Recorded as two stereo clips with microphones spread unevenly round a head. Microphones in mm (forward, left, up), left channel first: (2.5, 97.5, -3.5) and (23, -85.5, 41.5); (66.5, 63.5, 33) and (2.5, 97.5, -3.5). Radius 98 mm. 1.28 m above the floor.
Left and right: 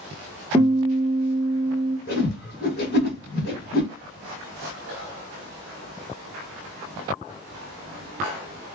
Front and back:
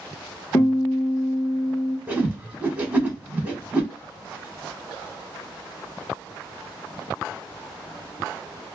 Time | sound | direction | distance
0.5 | a guitar | 10° right | 1.1 m
2.1 | a whoosh | 65° left | 1.3 m